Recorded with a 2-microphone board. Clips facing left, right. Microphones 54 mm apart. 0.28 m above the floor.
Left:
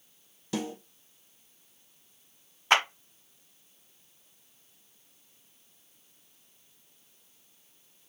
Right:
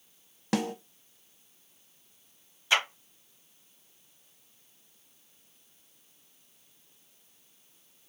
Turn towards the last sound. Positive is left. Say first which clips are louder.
# left 3 dB
turn(degrees=50)  # may be behind; listen again after turning